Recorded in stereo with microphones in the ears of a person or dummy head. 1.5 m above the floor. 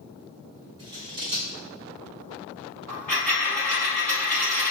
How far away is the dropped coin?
About 1.6 m.